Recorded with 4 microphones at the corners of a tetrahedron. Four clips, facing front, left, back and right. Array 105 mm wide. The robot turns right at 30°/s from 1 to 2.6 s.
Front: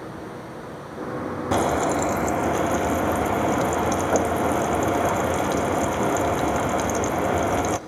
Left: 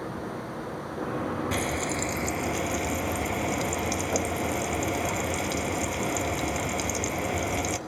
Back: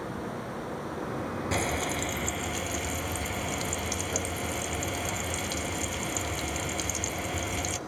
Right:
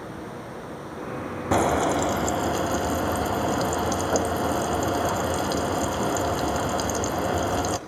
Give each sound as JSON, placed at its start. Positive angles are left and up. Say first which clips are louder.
{"t": 1.5, "sound": "frying", "louder": "right 8 dB, front 11 dB", "azimuth_deg": -50, "distance_m": 0.6}